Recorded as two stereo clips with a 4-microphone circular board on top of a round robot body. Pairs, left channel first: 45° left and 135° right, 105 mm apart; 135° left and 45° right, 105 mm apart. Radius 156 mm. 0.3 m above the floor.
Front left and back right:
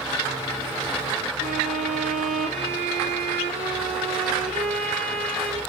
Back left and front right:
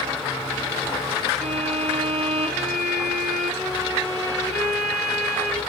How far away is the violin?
About 2.5 m.